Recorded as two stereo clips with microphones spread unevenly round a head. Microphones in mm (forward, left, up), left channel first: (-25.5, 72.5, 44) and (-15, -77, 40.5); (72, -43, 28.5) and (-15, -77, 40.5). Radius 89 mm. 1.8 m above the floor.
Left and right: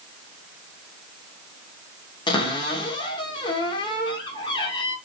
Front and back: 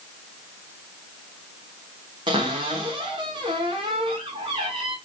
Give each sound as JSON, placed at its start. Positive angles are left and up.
{"t": 2.3, "sound": "a cupboard door", "azimuth_deg": 150, "distance_m": 1.0}